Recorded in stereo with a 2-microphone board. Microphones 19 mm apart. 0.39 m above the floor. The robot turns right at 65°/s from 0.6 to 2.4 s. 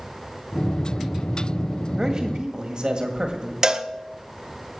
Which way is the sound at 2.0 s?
25° right (ahead or behind).